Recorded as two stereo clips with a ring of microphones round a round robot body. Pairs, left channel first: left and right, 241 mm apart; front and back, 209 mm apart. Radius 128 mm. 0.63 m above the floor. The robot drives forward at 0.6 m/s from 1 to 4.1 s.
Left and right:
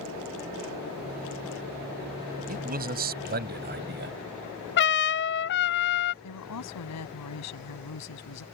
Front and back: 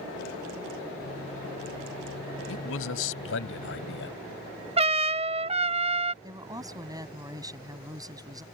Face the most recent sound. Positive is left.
turn(degrees=105)